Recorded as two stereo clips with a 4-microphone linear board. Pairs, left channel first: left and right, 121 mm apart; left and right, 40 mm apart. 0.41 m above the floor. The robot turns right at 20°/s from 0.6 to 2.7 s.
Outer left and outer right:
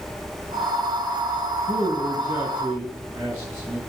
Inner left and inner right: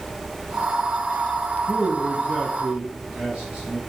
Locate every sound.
1.7 s a man speaking: 50° right (ahead or behind), 4 m; by 3.8 s 30° right (ahead or behind), 4 m